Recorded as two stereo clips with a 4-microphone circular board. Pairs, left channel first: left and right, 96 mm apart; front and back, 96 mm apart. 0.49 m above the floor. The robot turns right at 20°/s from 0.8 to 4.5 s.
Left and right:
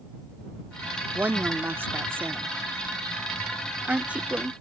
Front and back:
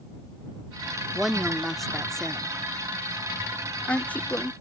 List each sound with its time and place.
1.1 s a woman speaking: 100° right; by 4.5 s 30° right